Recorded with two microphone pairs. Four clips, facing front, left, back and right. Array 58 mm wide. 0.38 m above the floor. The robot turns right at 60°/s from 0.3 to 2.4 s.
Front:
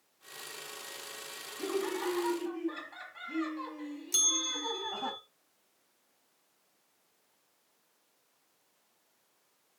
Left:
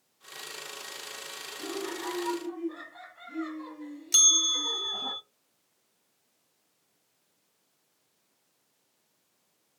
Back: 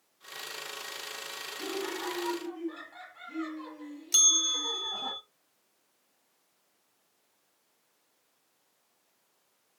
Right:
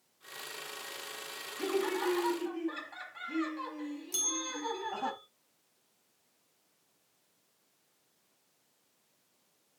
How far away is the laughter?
About 7 m.